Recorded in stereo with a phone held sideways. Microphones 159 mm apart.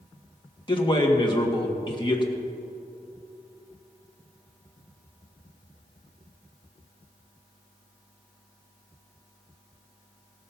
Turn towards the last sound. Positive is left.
turn(degrees=30)  # may be behind; listen again after turning